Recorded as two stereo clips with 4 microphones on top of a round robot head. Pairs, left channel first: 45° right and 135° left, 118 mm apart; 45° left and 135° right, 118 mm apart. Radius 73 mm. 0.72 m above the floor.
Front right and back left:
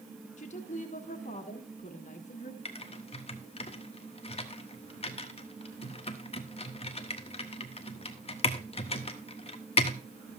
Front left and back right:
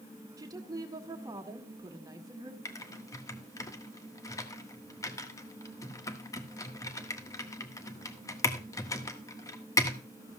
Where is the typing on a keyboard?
15° right, 1.4 m.